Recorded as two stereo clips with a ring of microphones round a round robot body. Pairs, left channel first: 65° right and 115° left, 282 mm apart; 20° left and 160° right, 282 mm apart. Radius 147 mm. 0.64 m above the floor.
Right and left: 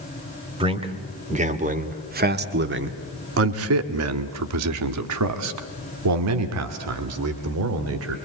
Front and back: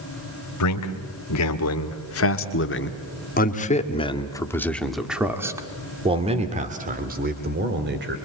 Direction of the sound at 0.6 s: 40° left.